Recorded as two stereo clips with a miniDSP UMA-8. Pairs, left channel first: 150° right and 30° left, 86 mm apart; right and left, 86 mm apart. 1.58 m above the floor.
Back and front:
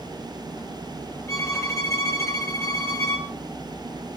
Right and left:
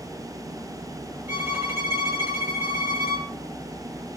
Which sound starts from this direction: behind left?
A violin, at 1.3 s.